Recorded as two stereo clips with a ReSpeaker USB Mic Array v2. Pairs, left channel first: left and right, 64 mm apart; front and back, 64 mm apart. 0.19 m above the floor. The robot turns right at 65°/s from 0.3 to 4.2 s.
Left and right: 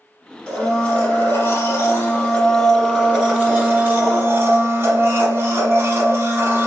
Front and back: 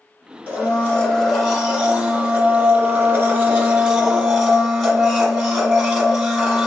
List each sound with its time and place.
0.5 s a blender: 25° left, 1.4 m; by 6.7 s 95° right, 1.4 m